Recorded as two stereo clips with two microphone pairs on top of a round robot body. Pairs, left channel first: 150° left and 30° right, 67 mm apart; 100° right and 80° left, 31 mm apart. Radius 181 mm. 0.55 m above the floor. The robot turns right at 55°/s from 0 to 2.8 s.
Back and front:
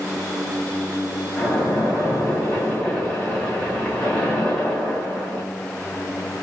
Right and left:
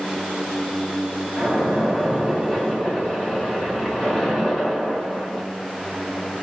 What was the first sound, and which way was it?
A splash, 130° left.